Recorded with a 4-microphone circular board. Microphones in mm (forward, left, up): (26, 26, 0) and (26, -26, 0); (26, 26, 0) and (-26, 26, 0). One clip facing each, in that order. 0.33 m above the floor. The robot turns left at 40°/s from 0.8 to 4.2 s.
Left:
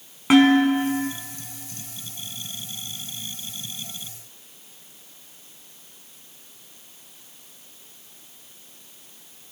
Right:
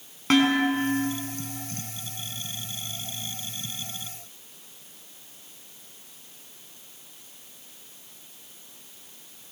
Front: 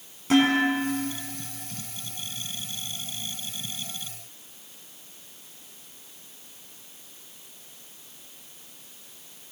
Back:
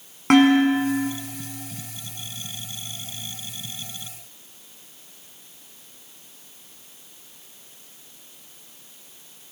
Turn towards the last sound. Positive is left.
turn(degrees=35)